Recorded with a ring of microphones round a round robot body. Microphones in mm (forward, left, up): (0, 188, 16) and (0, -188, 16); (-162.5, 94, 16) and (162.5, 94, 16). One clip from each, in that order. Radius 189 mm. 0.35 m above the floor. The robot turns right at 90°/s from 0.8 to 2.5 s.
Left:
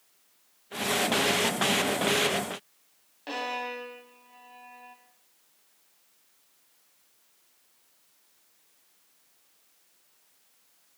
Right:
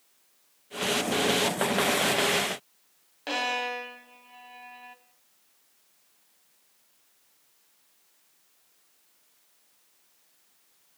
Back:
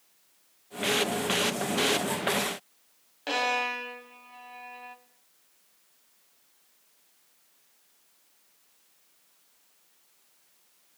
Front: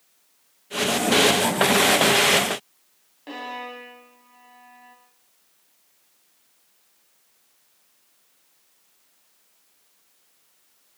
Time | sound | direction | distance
3.3 | a violin | 155° right | 2.0 m